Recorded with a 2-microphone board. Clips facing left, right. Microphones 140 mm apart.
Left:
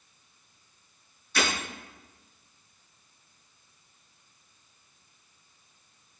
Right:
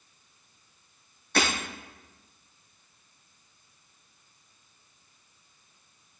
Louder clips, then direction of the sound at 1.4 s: Right 2 dB; 60° right (ahead or behind).